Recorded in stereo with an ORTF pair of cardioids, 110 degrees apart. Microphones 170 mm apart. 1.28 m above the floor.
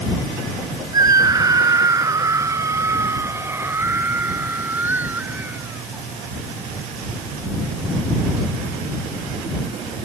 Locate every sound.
0.9 s a scream: 20° right; by 6.1 s 10° right